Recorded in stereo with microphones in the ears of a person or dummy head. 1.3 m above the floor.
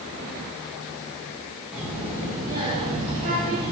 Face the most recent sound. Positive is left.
turn(degrees=-40)  # may be behind; listen again after turning